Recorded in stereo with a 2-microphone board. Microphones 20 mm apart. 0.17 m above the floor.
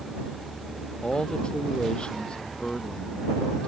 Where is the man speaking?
45° left (ahead or behind); by 3.7 s 55° left (ahead or behind).